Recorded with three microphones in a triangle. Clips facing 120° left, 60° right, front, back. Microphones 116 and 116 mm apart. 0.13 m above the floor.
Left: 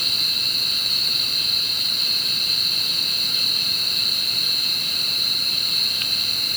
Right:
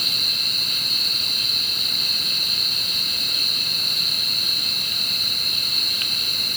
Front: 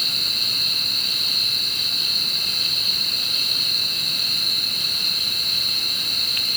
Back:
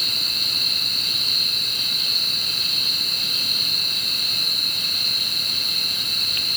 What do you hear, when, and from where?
Only background noise.